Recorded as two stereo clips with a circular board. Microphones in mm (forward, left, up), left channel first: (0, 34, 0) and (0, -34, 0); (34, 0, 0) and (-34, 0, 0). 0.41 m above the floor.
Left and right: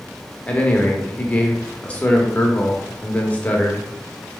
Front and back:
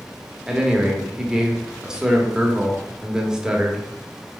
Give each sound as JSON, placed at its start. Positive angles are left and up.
{"t": 0.5, "sound": "a man speaking", "azimuth_deg": 115, "distance_m": 0.9}